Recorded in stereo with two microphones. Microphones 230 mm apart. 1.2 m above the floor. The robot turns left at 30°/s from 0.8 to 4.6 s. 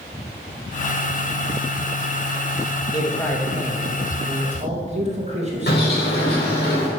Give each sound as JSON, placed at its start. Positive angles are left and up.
{"t": 2.9, "sound": "a man speaking", "azimuth_deg": 20, "distance_m": 2.0}
{"t": 5.7, "sound": "a bird", "side_deg": 50, "distance_m": 3.5}